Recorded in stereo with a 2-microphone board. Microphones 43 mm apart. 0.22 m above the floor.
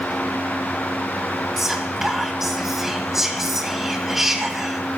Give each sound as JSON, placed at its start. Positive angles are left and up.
{"t": 1.6, "sound": "whispering", "side_deg": -10, "distance_m": 1.2}